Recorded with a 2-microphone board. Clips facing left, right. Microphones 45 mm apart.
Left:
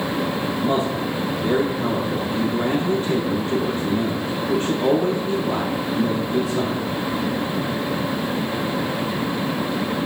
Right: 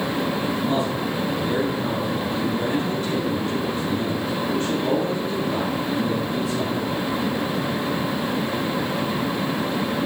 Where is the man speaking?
30° left (ahead or behind), 3 m.